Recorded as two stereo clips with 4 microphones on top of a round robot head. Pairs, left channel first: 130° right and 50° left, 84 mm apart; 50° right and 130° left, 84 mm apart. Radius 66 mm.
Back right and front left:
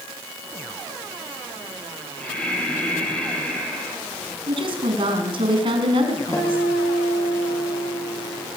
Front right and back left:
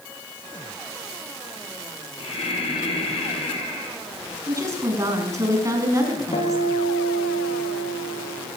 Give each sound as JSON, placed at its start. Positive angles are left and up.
{"t": 2.2, "sound": "breathing", "azimuth_deg": -50, "distance_m": 7.5}
{"t": 4.5, "sound": "a woman speaking", "azimuth_deg": 75, "distance_m": 5.5}
{"t": 6.3, "sound": "a guitar", "azimuth_deg": -65, "distance_m": 7.5}